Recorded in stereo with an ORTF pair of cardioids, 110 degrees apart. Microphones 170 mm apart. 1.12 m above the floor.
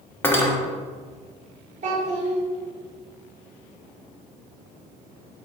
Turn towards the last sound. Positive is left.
turn(degrees=-45)